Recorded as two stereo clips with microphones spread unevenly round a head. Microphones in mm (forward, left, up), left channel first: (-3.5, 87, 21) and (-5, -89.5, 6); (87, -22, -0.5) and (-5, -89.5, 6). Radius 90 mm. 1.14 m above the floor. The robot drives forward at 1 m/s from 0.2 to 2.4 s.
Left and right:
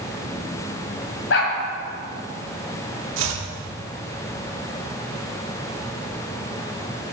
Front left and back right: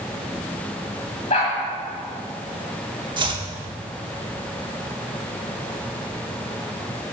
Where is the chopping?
100° right, 1.2 m.